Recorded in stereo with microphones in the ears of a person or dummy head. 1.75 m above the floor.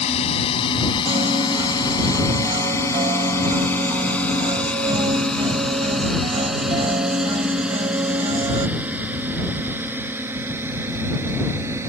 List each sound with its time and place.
0.0 s a drone: 35° left (ahead or behind); by 11.9 s 15° right (ahead or behind)
1.1 s a piano: 25° right (ahead or behind)